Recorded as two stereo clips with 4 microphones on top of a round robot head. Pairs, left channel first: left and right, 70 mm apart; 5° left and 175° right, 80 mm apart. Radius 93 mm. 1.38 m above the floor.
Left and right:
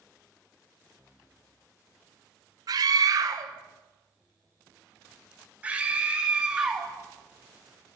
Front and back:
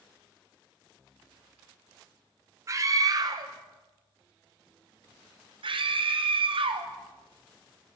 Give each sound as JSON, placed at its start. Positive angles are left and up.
{"t": 2.7, "sound": "a scream", "azimuth_deg": -120, "distance_m": 1.5}